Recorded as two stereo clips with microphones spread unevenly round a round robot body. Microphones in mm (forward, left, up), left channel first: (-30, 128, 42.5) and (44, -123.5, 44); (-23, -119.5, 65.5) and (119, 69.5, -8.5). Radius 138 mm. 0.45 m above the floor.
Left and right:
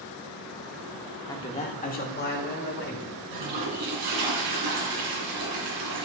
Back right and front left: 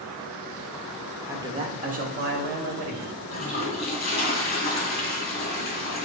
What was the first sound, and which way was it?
A man speaking, 45° left.